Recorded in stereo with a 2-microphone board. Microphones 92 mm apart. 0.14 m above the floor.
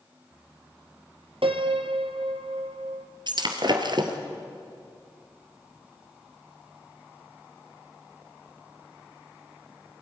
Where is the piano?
75° right (ahead or behind), 1.6 m.